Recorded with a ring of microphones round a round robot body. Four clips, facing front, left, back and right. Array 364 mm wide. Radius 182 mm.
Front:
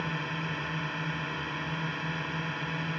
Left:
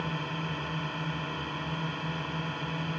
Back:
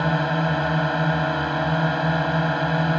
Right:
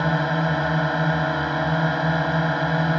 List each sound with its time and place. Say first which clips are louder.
0.0 s a drone: right 13 dB, back 13 dB; 130° right